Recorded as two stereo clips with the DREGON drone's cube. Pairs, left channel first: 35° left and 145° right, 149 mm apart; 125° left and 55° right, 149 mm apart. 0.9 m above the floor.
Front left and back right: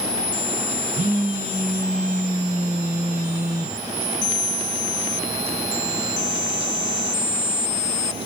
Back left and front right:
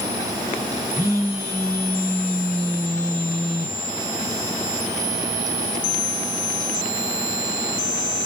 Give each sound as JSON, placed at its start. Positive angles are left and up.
{"t": 0.9, "sound": "a phone buzzing", "azimuth_deg": 180, "distance_m": 1.7}